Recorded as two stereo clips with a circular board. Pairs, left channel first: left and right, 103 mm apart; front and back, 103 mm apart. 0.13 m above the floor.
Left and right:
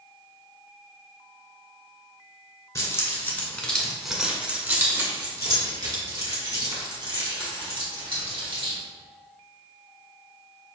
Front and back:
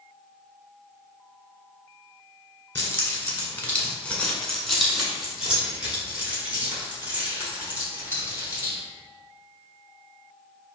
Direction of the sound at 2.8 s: 55° left.